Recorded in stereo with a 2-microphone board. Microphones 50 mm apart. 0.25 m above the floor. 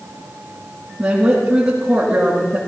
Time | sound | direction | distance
1.0 | a woman speaking | 20° right (ahead or behind) | 9.5 m